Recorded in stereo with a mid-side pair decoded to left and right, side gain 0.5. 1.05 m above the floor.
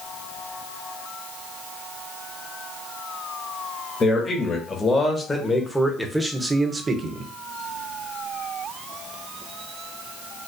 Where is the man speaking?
35° left, 1.7 m; by 7.3 s 55° right, 1.0 m.